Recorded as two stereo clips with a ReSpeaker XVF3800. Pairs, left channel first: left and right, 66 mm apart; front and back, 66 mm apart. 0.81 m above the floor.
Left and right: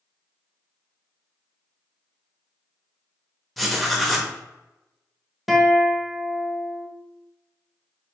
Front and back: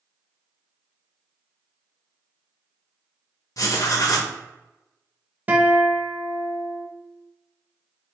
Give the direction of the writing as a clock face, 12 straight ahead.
12 o'clock.